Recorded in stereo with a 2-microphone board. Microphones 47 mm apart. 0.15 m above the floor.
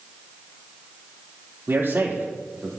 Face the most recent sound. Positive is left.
turn(degrees=-50)  # may be behind; listen again after turning